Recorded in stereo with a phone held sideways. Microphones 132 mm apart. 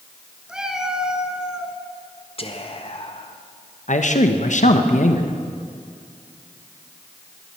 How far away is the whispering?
About 1.3 m.